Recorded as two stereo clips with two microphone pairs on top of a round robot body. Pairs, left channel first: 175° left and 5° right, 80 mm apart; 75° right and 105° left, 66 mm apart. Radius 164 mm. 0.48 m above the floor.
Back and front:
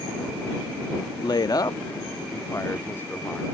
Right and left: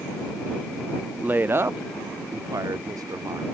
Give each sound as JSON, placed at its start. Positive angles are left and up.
{"t": 1.2, "sound": "a woman speaking", "azimuth_deg": 150}